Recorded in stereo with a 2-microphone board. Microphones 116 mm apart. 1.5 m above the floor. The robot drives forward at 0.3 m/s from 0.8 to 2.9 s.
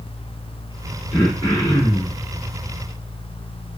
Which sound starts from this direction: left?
Throat clearing, at 1.1 s.